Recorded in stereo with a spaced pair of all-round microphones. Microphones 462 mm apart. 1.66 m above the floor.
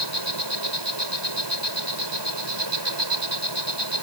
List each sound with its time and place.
0.0 s an insect: 60° right (ahead or behind)